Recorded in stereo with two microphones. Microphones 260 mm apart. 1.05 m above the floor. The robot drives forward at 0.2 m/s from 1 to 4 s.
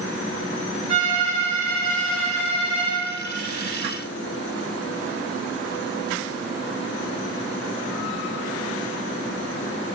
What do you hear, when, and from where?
0.9 s a violin: 25° right (ahead or behind), 1.7 m; by 3.0 s 20° right (ahead or behind), 2 m